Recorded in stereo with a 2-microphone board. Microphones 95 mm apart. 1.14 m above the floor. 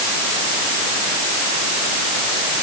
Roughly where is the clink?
I don't hear a clink.